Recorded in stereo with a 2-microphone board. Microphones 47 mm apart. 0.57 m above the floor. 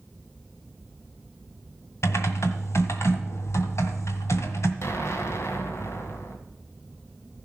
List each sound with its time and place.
2.0 s typing on a keyboard: 75° left (ahead or behind), 1.7 m
4.8 s an explosion: 65° left (ahead or behind), 2 m